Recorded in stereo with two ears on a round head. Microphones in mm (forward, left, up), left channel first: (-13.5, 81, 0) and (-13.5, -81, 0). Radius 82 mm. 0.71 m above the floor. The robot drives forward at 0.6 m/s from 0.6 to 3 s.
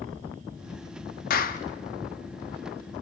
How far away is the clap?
About 0.9 m.